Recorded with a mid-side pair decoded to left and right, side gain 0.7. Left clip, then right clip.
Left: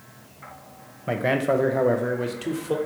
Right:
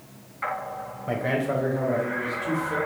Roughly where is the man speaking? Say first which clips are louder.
Left 4 dB; ahead.